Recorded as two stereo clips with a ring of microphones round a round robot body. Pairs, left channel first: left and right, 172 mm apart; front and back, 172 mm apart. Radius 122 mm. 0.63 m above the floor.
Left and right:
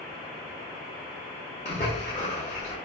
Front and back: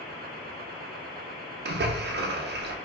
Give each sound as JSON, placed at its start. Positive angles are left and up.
{"t": 1.6, "sound": "a splash", "azimuth_deg": 155, "distance_m": 0.7}